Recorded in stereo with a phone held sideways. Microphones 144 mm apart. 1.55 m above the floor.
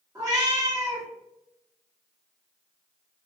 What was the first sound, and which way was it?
A cat meowing, 20° right (ahead or behind).